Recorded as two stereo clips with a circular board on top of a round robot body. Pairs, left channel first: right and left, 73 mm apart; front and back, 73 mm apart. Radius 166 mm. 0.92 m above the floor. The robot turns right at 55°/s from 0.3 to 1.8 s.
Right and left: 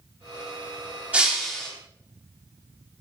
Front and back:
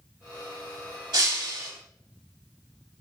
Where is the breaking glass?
160° left, 3 m; by 1.7 s 165° right, 3 m.